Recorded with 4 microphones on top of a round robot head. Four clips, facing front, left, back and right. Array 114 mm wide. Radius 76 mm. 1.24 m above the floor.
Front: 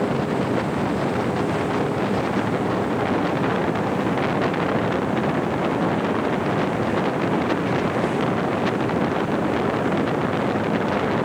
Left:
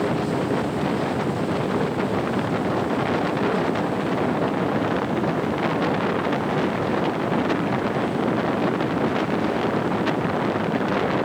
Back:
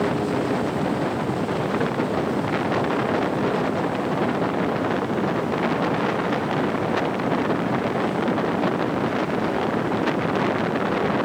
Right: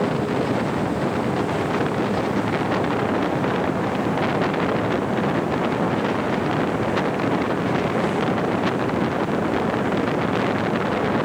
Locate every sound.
Only background noise.